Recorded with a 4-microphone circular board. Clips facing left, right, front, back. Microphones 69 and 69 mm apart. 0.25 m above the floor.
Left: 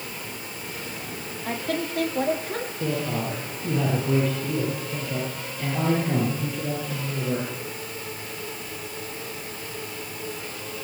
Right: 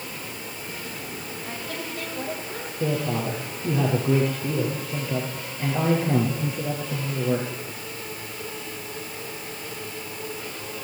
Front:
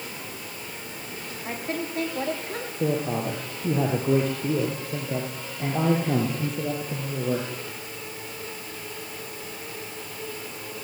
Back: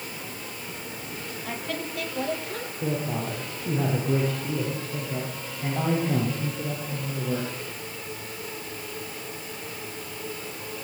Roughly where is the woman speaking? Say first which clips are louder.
Left 8 dB, front 3 dB; ahead left.